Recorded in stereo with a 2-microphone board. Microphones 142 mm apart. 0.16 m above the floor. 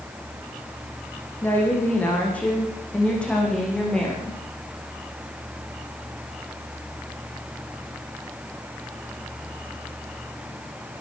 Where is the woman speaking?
15° left (ahead or behind), 9.5 m; by 4.4 s 5° left (ahead or behind), 12.5 m.